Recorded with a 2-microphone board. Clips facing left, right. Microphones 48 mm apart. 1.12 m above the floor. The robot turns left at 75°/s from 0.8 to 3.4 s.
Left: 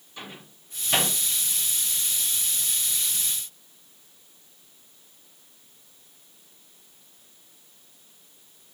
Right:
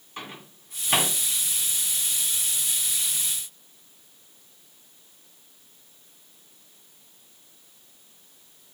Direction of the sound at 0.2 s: 45° right (ahead or behind).